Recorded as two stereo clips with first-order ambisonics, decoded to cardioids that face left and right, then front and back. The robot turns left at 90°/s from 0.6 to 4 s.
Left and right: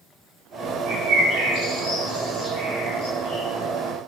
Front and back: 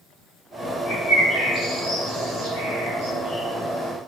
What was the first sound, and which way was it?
A bird, 40° right.